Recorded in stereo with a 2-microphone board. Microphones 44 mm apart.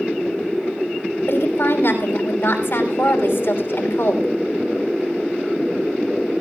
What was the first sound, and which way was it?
A woman speaking, 60° left (ahead or behind).